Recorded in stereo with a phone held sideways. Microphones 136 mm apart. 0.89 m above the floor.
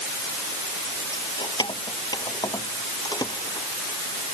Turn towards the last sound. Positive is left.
turn(degrees=25)  # may be behind; listen again after turning